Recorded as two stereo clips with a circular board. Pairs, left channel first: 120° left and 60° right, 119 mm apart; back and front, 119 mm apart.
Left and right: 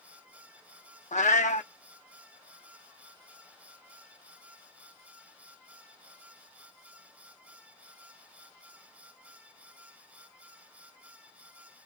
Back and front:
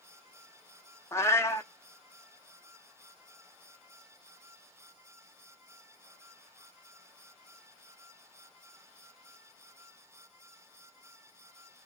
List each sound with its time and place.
1.1 s a cat meowing: 110° left, 0.5 m